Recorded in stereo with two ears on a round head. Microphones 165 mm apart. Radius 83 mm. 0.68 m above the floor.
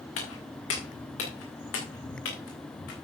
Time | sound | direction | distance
0.2 | footsteps | 75° left (ahead or behind) | 4 m